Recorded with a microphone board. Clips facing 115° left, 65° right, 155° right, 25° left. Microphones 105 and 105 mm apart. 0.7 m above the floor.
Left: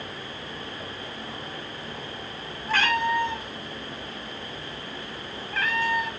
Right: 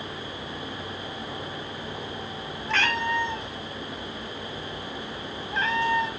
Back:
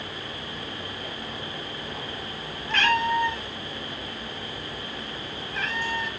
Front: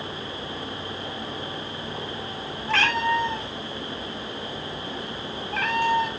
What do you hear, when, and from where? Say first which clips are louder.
2.7 s a cat meowing: left 3 dB, even; 30° left, 3.5 m; by 6.1 s 10° right, 2.5 m